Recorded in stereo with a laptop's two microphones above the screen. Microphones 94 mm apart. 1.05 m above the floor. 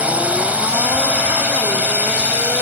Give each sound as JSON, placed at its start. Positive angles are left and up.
{"t": 0.0, "sound": "a drone", "side_deg": -15}